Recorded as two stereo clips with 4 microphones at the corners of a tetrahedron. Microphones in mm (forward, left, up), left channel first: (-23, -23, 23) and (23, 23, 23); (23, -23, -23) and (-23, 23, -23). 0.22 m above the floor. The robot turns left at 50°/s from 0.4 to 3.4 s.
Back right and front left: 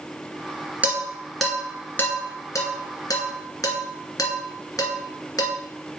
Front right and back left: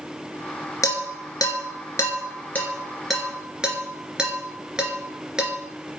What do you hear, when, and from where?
0.8 s dishes clattering: 20° right, 2 m; by 5.5 s 145° right, 2 m